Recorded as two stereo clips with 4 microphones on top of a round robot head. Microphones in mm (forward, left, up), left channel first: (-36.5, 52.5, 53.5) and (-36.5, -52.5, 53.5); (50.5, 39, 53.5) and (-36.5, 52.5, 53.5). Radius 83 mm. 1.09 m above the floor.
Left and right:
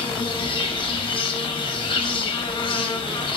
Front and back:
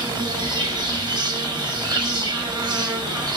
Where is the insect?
135° left, 0.8 m.